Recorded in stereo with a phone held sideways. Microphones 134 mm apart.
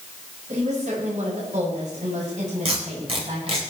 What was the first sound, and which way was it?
A woman speaking, 70° right (ahead or behind).